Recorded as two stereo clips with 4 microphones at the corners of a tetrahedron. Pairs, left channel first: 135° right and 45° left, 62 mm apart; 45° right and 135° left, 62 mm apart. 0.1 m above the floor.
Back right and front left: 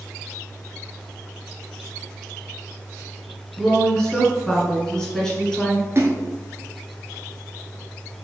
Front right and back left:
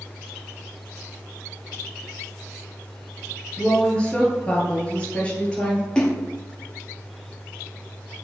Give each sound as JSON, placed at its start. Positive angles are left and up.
{"t": 3.6, "sound": "a woman speaking", "azimuth_deg": -70, "distance_m": 1.2}
{"t": 6.0, "sound": "a splash", "azimuth_deg": 25, "distance_m": 0.7}